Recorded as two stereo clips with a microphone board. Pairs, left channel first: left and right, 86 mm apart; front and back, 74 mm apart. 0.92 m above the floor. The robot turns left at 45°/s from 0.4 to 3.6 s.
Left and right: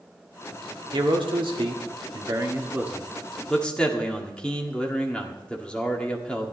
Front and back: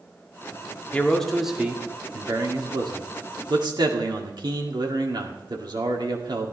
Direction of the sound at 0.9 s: 70° right.